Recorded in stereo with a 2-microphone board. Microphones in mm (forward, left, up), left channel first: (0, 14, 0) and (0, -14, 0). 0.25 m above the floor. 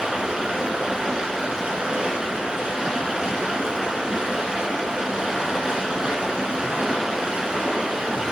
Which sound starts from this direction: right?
Running water, at 0.0 s.